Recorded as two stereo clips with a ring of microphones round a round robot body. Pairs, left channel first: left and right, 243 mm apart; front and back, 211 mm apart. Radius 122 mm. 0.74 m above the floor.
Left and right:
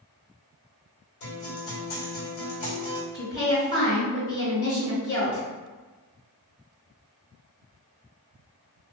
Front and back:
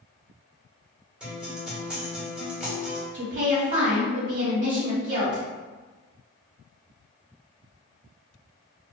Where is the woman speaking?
135° left, 1.6 m.